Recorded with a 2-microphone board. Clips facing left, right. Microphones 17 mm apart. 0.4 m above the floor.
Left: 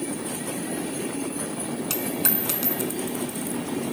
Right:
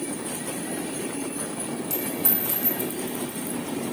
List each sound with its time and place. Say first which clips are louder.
1.9 s a dropped coin: left 3 dB; 60° left (ahead or behind), 1.9 m